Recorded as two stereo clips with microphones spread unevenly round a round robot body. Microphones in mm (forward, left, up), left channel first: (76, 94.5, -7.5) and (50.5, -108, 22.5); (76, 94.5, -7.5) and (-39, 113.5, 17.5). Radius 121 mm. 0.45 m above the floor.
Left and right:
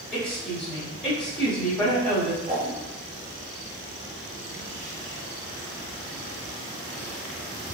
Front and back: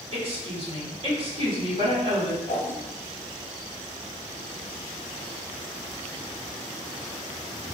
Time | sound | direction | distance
0.1 | a woman speaking | 155° left | 1.4 m
2.5 | a whoosh | 80° right | 1.6 m